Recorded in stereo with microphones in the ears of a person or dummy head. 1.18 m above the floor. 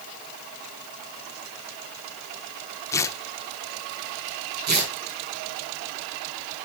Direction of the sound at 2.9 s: 15° left (ahead or behind).